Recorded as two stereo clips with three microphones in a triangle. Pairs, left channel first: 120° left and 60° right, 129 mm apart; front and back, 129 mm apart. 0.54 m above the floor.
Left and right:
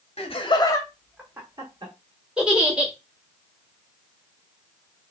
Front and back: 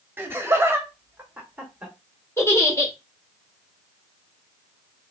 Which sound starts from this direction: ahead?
A giggle, at 2.4 s.